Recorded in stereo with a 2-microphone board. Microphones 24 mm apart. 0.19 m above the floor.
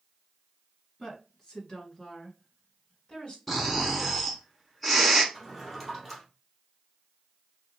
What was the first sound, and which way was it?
A woman speaking, 30° left (ahead or behind).